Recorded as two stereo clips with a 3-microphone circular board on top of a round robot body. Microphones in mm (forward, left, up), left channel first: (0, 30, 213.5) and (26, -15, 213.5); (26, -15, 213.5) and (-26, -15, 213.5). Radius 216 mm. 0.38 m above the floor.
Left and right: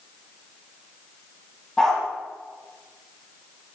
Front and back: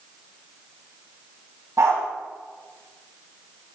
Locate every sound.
1.8 s a dog barking: 160° right, 9.5 m